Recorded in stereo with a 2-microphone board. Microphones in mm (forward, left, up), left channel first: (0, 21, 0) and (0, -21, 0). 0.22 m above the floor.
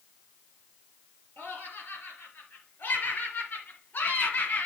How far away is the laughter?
About 4.5 m.